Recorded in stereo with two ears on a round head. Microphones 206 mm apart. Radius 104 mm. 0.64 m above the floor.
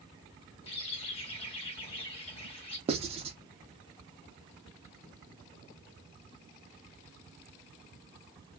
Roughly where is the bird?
Left.